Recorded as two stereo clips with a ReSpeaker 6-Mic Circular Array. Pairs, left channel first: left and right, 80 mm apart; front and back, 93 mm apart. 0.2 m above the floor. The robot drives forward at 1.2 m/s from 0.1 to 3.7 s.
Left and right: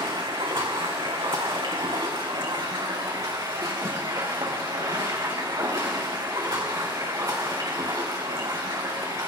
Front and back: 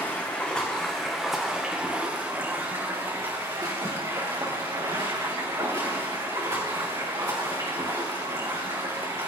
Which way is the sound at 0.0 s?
70° right.